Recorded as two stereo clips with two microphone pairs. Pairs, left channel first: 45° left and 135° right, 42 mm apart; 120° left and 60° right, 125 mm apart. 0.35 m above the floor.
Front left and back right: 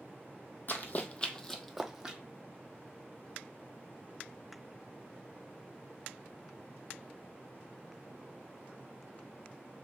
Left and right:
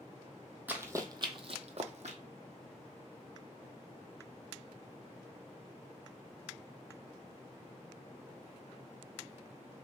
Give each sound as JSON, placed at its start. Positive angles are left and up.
{"t": 0.7, "sound": "running footsteps", "azimuth_deg": 15, "distance_m": 0.6}